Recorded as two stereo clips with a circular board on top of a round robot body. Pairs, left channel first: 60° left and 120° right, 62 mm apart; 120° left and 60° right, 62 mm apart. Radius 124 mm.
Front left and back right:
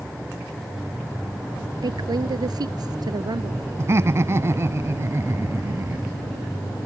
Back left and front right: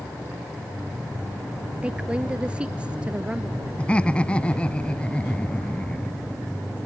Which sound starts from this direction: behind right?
A woman speaking, at 1.8 s.